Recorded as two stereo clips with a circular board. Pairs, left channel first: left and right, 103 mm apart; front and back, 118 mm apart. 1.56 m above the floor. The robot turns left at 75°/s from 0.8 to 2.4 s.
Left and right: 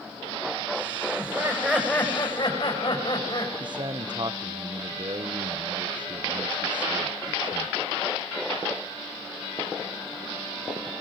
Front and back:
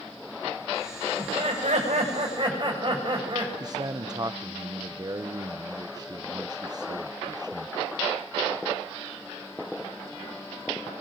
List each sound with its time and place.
1.2 s laughter: 135° right, 8.5 m; by 3.5 s 135° left, 8.5 m
3.6 s a man speaking: 125° right, 0.8 m